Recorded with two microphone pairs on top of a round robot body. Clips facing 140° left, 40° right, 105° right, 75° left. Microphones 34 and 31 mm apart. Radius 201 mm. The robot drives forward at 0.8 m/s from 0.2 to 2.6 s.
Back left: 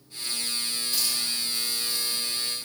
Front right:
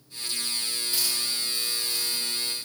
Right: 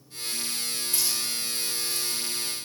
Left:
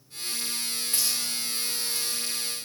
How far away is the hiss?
About 2 m.